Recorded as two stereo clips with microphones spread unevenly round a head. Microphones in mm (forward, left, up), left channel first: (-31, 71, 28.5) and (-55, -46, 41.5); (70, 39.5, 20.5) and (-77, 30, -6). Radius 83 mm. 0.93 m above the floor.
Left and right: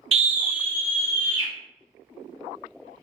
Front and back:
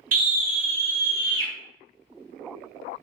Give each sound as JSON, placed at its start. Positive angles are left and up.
{"t": 0.1, "sound": "a scream", "azimuth_deg": -140, "distance_m": 0.7}